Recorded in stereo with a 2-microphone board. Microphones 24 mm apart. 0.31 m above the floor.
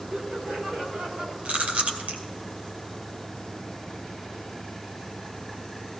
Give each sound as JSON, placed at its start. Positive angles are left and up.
{"t": 0.1, "sound": "laughter", "side_deg": -65, "distance_m": 4.5}
{"t": 1.4, "sound": "chewing", "side_deg": -80, "distance_m": 2.5}